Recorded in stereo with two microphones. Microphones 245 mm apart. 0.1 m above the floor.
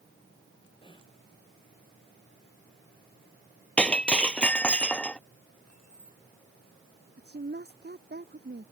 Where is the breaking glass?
5° left (ahead or behind).